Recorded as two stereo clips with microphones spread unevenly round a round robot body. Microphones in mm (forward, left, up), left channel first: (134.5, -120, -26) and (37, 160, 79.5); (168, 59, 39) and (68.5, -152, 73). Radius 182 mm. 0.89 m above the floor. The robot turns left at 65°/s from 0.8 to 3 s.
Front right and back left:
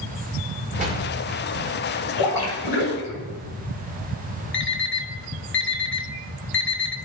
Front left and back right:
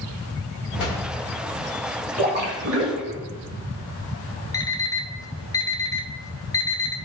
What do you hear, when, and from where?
0.8 s a door slam: 45° left, 1.8 m; by 1.0 s 30° left, 1.8 m
2.2 s a splash: 60° right, 2 m; by 3.2 s 115° right, 2 m
4.5 s an alarm clock: 15° right, 1.1 m